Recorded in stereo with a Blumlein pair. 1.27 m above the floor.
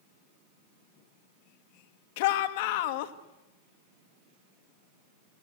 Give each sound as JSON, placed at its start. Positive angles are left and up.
{"t": 2.2, "sound": "a shout", "azimuth_deg": 50, "distance_m": 1.7}